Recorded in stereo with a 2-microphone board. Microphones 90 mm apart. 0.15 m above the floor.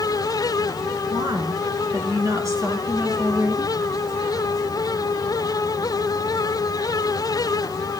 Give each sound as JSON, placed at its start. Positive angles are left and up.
{"t": 1.1, "sound": "a woman speaking", "side_deg": -50, "distance_m": 2.0}